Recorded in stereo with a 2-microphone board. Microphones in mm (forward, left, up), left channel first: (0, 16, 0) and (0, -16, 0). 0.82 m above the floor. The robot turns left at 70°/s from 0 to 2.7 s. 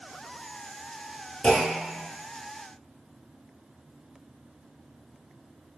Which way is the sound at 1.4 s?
45° left.